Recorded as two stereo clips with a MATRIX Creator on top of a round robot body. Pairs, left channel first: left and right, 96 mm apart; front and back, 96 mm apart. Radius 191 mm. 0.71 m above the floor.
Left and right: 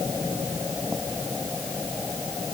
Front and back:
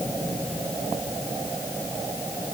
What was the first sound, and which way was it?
Only background noise.